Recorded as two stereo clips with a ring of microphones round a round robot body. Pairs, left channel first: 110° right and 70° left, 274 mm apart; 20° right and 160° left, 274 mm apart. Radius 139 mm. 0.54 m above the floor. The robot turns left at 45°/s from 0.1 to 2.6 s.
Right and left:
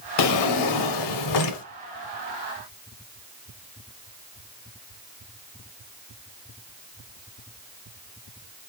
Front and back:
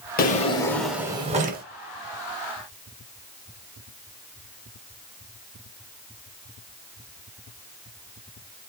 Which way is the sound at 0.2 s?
80° right.